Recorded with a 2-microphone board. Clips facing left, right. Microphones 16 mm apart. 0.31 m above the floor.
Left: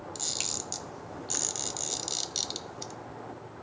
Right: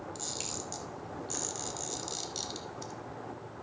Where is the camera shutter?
35° left (ahead or behind), 0.7 m.